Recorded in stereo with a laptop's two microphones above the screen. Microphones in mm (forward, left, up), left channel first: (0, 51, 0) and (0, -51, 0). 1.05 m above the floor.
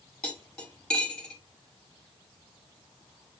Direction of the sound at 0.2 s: 5° left (ahead or behind).